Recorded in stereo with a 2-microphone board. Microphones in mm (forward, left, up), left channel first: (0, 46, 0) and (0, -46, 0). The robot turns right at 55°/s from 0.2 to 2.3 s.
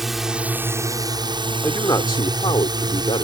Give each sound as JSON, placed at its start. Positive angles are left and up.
{"t": 0.0, "sound": "a drone", "azimuth_deg": 180}
{"t": 1.6, "sound": "a man speaking", "azimuth_deg": 30}